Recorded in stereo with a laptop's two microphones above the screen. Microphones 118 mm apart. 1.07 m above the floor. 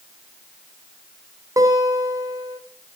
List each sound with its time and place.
1.6 s a guitar: 30° right (ahead or behind), 3 m